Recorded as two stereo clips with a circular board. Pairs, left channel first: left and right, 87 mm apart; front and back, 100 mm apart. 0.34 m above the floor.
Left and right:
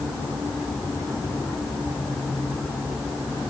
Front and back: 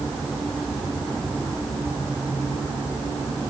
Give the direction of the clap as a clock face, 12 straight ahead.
I don't hear a clap.